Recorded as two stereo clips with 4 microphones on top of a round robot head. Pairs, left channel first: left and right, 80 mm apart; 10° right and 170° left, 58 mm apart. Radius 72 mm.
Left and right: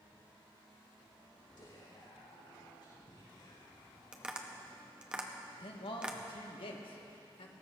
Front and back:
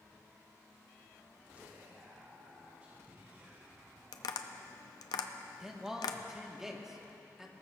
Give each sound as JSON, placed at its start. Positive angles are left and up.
{"t": 1.6, "sound": "whispering", "azimuth_deg": 105, "distance_m": 5.0}
{"t": 4.1, "sound": "tapping", "azimuth_deg": -10, "distance_m": 0.7}
{"t": 5.6, "sound": "a man speaking", "azimuth_deg": 90, "distance_m": 2.0}